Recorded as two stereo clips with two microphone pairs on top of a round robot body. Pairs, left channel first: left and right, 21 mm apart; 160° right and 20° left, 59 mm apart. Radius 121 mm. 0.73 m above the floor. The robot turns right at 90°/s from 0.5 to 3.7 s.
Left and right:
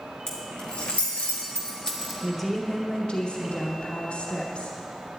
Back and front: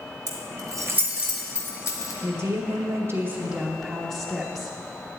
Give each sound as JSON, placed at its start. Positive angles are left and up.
{"t": 0.3, "sound": "keys jangling", "azimuth_deg": 30, "distance_m": 1.3}
{"t": 2.2, "sound": "a woman speaking", "azimuth_deg": -30, "distance_m": 1.1}